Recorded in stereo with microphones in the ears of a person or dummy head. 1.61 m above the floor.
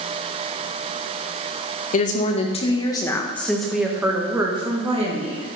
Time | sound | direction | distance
1.9 | a woman speaking | 45° left (ahead or behind) | 2 m